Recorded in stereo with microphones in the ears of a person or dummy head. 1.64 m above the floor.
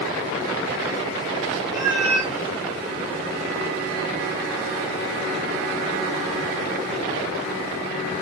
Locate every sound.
1.7 s a cat meowing: 20° right (ahead or behind), 1.8 m